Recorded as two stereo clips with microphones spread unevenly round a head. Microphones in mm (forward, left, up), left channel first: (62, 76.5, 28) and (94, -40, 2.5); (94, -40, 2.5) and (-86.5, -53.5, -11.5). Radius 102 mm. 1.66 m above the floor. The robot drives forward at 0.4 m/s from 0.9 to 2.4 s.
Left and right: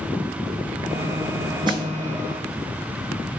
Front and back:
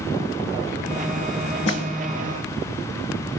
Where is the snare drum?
25° right, 2.5 m.